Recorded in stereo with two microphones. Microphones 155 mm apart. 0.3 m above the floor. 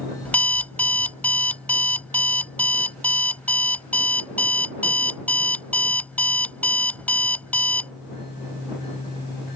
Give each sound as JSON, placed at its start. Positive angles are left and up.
{"t": 0.2, "sound": "an alarm clock", "side_deg": 10}